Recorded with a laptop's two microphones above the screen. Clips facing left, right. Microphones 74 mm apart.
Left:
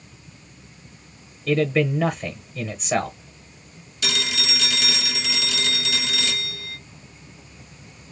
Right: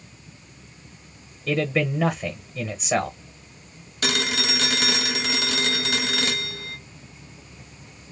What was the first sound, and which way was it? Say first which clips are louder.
A man speaking: left 3 dB; centre (ahead or behind).